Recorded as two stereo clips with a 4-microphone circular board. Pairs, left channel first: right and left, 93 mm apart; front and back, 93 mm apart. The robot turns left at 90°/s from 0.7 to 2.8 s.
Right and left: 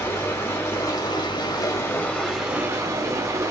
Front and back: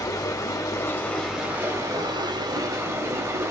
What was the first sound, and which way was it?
Running water, 35° right.